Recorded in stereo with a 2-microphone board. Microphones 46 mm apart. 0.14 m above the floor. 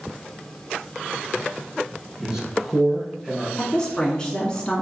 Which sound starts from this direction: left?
A woman speaking, at 3.6 s.